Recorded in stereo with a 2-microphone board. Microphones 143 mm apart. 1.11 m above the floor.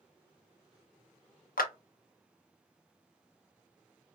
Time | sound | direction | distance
1.6 | a clap | 85° left | 0.5 m